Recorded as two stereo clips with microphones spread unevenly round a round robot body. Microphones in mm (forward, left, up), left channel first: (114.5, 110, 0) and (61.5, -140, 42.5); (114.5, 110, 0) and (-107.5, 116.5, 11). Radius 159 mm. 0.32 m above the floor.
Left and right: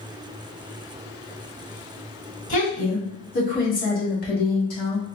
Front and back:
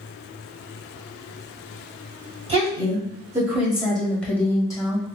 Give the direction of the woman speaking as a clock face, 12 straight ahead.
8 o'clock.